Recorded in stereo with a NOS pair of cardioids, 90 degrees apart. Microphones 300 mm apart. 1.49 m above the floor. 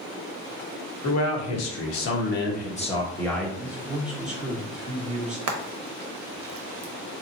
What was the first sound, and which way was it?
A man speaking, 65° left.